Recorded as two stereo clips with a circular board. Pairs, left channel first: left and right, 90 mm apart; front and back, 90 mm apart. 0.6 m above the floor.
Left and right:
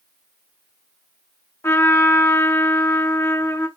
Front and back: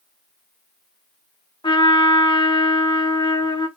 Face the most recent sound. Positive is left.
turn(degrees=30)